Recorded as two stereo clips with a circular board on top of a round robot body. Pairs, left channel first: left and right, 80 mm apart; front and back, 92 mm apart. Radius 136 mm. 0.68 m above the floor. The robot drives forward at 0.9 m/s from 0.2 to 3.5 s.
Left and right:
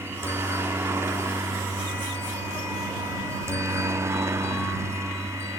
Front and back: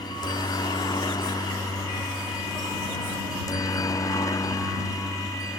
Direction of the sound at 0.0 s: 35° right.